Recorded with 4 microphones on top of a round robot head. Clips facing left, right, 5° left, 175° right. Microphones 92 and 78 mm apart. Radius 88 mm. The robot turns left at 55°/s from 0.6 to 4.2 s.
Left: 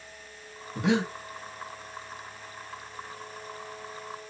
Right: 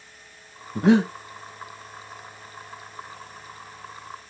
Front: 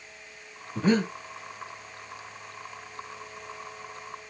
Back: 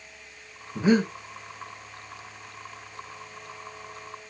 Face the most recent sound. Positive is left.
turn(degrees=80)